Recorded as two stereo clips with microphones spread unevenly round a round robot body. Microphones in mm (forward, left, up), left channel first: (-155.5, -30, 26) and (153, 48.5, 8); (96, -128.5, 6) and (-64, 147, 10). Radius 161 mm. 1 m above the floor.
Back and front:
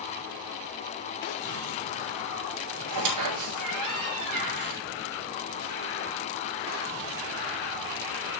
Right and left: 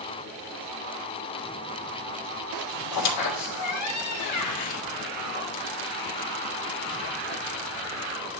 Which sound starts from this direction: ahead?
A squeak, at 2.9 s.